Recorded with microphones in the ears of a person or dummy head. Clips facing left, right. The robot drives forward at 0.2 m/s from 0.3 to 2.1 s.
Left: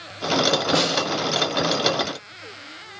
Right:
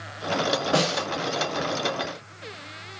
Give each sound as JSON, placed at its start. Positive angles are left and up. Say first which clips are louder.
{"t": 0.7, "sound": "a snare drum", "louder": "left 2 dB", "side_deg": 20, "distance_m": 2.0}